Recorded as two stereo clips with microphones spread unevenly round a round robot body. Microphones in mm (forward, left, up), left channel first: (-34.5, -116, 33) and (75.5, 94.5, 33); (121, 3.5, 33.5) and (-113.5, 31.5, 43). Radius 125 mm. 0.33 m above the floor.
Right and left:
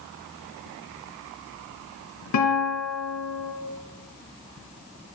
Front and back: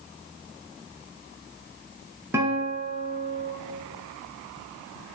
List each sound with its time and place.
2.3 s a guitar: 105° right, 3 m